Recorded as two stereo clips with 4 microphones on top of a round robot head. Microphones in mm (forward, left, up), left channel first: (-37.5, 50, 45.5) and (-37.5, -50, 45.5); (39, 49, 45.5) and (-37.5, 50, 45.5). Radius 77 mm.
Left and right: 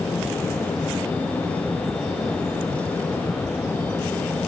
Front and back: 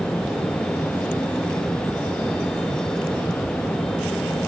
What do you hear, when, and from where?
Only background noise.